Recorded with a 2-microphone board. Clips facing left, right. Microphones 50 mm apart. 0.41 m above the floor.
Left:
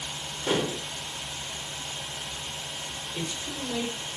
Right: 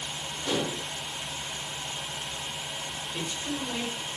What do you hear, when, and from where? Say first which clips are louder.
0.5 s dishes clattering: left 3 dB; 40° left (ahead or behind), 0.7 m
3.1 s a man speaking: right 1 dB; 55° right (ahead or behind), 2.5 m